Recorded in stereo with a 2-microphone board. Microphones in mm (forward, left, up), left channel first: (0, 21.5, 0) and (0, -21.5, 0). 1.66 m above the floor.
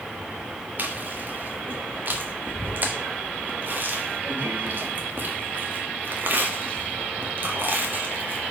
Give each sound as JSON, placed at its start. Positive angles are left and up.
{"t": 0.8, "sound": "chewing", "side_deg": -45, "distance_m": 1.6}